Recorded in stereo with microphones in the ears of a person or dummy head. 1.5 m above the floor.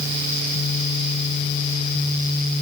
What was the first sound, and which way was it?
Only background noise.